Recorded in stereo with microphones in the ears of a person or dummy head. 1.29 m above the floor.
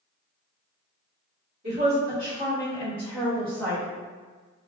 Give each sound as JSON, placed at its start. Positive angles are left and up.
{"t": 1.6, "sound": "a woman speaking", "side_deg": -40, "distance_m": 1.9}